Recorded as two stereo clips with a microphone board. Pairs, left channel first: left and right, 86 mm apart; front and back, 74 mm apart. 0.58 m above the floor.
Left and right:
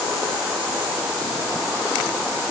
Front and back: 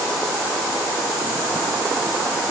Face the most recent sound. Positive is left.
No sound to turn to.